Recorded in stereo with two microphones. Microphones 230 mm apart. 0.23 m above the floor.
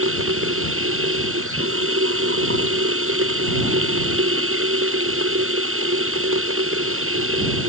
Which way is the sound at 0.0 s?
65° right (ahead or behind).